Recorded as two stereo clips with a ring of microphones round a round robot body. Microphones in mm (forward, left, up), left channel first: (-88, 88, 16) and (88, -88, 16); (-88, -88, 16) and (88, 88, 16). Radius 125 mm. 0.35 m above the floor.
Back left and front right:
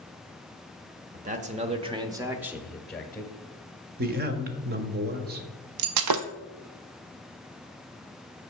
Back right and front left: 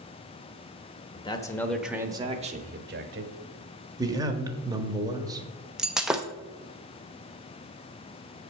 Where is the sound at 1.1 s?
80° right, 1.0 m; by 3.3 s 55° left, 1.2 m.